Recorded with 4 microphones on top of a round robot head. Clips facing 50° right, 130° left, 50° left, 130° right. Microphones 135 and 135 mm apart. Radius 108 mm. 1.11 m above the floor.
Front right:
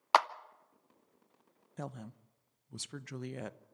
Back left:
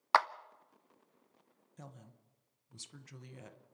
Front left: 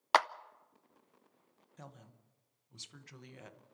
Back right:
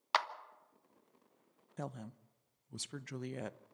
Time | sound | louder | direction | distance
0.1 | a clap | front right 2 dB, front left 6 dB | 20° left | 0.7 m
1.8 | a woman speaking | front right 11 dB, back right 10 dB | 85° right | 0.7 m